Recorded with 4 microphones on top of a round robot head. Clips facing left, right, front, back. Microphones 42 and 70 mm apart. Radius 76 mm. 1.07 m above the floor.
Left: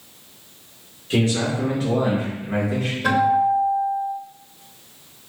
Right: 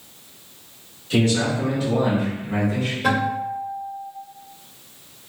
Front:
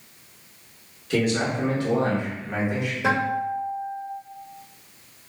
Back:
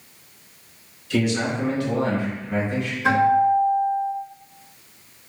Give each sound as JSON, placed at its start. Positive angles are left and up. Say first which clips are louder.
{"t": 1.1, "sound": "a man speaking", "louder": "right 1 dB, back 1 dB", "azimuth_deg": 40, "distance_m": 1.9}
{"t": 3.0, "sound": "a guitar", "louder": "left 6 dB, back 8 dB", "azimuth_deg": 0, "distance_m": 1.5}